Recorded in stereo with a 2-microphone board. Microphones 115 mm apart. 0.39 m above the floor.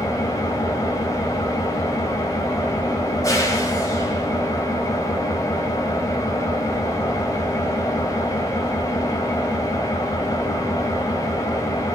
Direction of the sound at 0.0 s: 30° left (ahead or behind).